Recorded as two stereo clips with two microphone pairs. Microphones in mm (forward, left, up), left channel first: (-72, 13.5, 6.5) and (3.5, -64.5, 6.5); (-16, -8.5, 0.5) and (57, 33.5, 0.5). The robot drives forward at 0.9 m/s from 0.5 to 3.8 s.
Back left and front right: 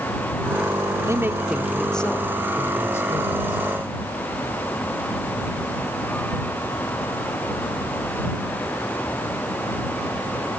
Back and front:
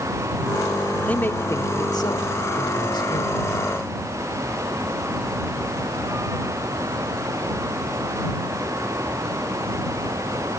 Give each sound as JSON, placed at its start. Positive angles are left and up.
{"t": 1.1, "sound": "a man speaking", "azimuth_deg": -85, "distance_m": 1.0}